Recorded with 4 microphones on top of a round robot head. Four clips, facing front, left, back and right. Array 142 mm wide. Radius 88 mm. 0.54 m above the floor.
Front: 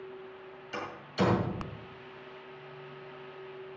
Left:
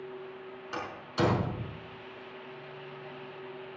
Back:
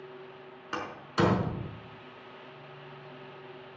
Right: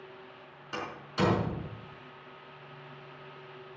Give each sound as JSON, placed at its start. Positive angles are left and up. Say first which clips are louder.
{"t": 0.7, "sound": "a door slam", "louder": "left 1 dB, back 3 dB", "azimuth_deg": 175, "distance_m": 5.0}